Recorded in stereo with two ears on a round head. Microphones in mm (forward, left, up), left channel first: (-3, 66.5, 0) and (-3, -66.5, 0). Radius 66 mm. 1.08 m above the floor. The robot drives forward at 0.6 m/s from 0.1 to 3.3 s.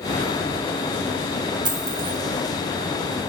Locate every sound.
1.6 s a dropped coin: 30° right (ahead or behind), 1.5 m; by 2.2 s 25° right (ahead or behind), 1.8 m